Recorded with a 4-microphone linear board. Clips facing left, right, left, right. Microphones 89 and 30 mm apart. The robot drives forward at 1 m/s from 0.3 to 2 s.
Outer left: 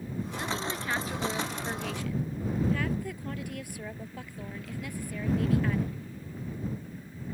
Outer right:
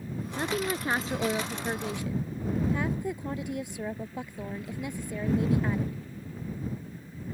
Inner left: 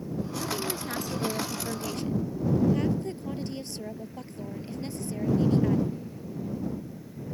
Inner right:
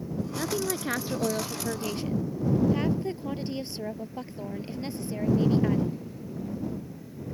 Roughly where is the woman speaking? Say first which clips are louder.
Outer right 6 dB, inner right 4 dB; right.